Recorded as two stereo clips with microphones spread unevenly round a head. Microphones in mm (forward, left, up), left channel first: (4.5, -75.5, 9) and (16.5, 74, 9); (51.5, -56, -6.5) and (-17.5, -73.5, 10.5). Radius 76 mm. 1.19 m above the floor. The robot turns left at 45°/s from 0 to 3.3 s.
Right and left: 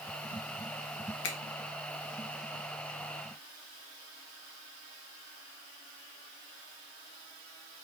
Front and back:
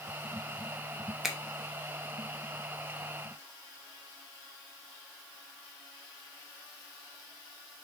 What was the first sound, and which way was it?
A finger snap, 80° right.